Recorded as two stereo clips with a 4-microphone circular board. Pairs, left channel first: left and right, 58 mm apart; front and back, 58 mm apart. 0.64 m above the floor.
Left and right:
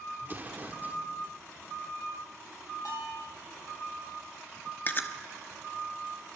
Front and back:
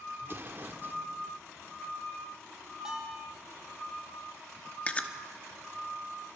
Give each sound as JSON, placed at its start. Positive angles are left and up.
{"t": 0.2, "sound": "an explosion", "azimuth_deg": -140, "distance_m": 1.6}
{"t": 2.9, "sound": "a bell", "azimuth_deg": 105, "distance_m": 6.0}
{"t": 4.9, "sound": "chewing", "azimuth_deg": 55, "distance_m": 1.1}